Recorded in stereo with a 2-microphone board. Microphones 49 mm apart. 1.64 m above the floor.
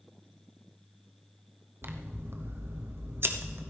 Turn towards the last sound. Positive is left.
turn(degrees=-50)  # may be behind; listen again after turning